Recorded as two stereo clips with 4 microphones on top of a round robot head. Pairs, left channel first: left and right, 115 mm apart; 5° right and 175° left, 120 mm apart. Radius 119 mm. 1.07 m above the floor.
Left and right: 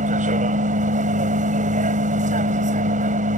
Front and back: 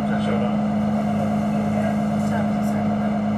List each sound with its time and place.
0.0 s a vehicle: 95° right